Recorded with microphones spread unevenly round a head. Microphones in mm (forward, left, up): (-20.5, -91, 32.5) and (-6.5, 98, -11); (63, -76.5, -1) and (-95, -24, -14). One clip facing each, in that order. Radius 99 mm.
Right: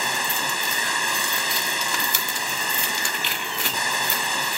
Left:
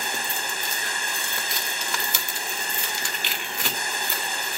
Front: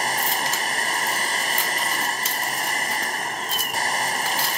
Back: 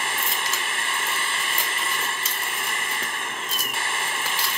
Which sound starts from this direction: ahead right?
A machine running, at 0.0 s.